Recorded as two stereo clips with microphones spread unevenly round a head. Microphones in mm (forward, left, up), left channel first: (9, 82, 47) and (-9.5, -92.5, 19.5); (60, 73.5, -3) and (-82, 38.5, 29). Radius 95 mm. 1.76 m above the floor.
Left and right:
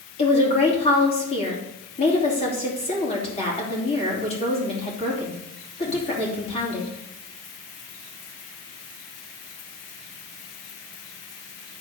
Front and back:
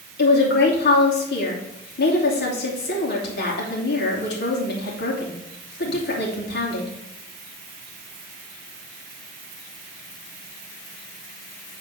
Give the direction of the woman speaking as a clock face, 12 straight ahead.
11 o'clock.